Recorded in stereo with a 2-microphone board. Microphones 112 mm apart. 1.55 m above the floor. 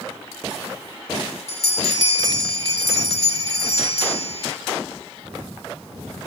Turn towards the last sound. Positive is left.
turn(degrees=-45)  # may be behind; listen again after turning